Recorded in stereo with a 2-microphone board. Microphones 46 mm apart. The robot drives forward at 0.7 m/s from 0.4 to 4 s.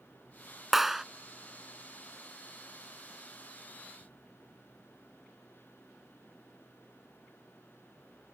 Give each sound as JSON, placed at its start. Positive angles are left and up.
{"t": 0.7, "sound": "a clap", "side_deg": -5}